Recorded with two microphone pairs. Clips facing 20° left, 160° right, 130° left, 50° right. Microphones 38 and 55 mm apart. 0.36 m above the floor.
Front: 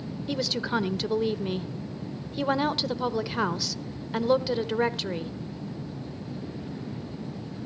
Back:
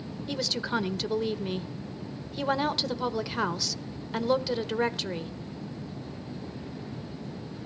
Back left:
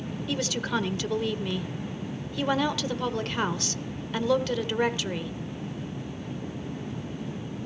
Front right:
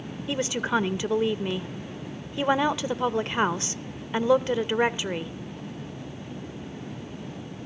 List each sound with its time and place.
0.3 s a woman speaking: 65° right, 0.8 m